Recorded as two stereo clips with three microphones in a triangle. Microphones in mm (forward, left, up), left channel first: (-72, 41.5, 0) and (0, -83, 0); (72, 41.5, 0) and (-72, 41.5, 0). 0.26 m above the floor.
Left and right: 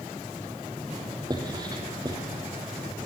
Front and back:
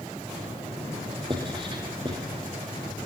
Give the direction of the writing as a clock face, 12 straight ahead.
4 o'clock.